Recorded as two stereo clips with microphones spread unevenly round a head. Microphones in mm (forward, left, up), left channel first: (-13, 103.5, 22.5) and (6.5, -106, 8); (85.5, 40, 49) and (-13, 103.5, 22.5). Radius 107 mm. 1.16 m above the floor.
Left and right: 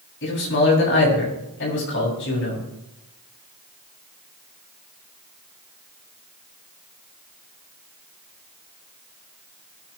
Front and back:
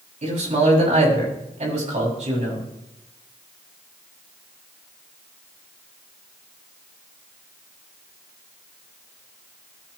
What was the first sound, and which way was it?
A man speaking, 130° left.